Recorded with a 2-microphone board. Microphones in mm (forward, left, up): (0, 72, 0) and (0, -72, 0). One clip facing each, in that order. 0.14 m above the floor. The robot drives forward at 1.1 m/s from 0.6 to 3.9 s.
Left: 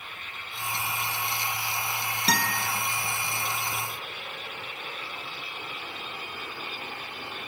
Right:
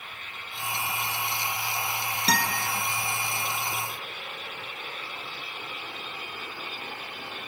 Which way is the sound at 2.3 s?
Centre (ahead or behind).